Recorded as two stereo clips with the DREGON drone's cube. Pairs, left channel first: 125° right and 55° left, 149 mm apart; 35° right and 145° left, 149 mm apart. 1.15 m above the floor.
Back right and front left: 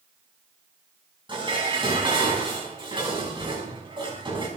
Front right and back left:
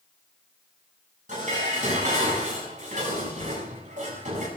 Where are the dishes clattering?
115° left, 6 m.